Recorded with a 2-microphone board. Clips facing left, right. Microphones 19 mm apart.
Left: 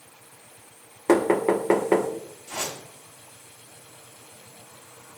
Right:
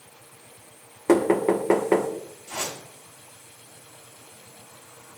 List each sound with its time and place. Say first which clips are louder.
1.1 s knocking: even; 10° left (ahead or behind), 1.7 m
2.5 s a whoosh: even; 35° right (ahead or behind), 7 m